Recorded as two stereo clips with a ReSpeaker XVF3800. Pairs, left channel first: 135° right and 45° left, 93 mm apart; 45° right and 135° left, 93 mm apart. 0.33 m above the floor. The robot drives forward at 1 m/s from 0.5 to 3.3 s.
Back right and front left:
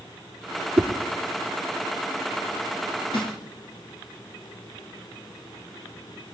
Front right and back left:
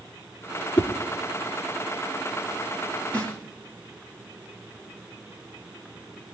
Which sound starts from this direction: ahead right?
A whoosh, at 0.8 s.